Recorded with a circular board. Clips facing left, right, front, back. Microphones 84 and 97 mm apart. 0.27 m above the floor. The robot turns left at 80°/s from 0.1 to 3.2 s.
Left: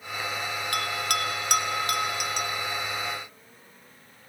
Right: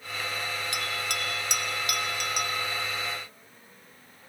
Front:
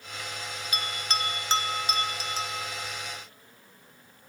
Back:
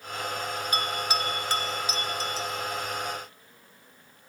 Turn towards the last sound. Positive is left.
turn(degrees=-70)